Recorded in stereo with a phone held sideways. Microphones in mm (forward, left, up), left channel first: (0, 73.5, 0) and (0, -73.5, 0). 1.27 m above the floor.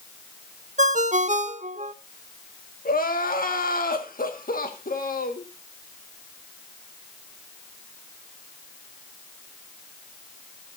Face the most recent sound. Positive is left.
turn(degrees=75)  # may be behind; listen again after turning